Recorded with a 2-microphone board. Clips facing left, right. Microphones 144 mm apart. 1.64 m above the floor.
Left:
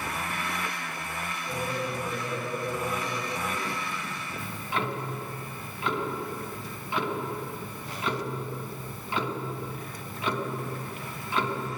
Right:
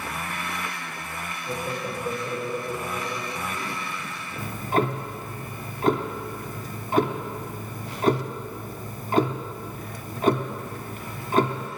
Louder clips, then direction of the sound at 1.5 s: Right 1 dB; 45° right (ahead or behind).